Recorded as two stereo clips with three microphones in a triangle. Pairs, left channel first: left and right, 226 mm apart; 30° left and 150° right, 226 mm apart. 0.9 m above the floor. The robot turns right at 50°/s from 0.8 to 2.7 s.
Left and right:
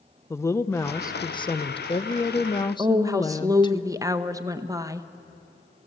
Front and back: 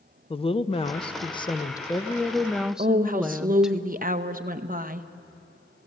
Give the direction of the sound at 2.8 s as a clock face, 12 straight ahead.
5 o'clock.